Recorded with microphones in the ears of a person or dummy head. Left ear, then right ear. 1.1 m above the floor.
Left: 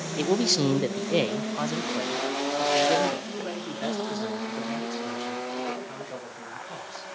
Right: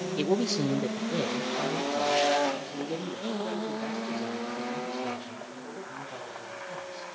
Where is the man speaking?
10° right (ahead or behind), 0.5 m; by 7.1 s 80° left, 5 m.